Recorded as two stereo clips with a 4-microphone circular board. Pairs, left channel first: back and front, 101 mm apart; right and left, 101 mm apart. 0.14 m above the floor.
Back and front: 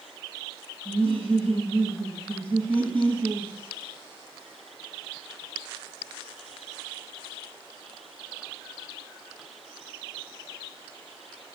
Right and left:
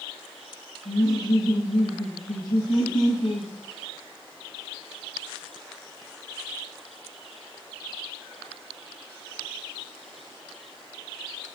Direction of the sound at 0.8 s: 105° right.